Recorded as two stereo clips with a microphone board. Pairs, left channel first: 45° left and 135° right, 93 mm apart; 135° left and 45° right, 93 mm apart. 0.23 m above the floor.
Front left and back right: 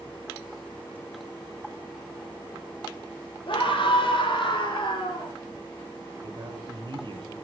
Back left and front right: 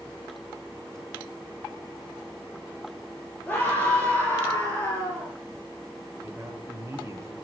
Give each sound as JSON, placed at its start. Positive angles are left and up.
{"t": 3.5, "sound": "a scream", "azimuth_deg": 65, "distance_m": 6.0}
{"t": 6.2, "sound": "a man speaking", "azimuth_deg": -100, "distance_m": 5.5}